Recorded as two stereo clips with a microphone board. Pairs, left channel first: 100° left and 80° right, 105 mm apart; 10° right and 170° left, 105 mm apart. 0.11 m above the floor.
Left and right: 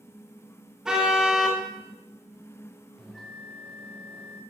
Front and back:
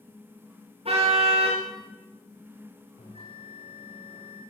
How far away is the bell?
About 7 m.